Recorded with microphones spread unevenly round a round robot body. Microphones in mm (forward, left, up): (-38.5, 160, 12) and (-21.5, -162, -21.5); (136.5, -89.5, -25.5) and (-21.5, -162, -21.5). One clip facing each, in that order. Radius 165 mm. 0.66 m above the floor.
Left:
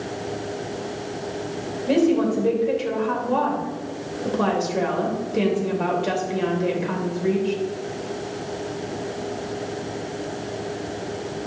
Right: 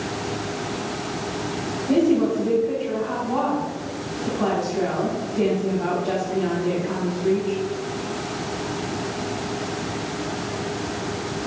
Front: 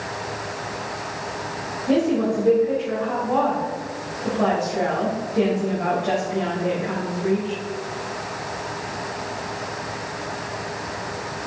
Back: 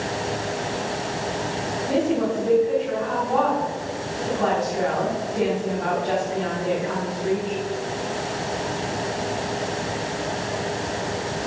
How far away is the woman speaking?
About 3 m.